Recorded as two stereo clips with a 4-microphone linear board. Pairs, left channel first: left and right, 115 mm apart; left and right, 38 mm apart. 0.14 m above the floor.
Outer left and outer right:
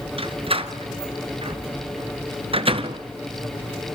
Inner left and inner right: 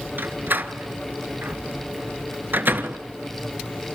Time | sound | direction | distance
0.2 | a door slam | 55° right (ahead or behind) | 1.2 m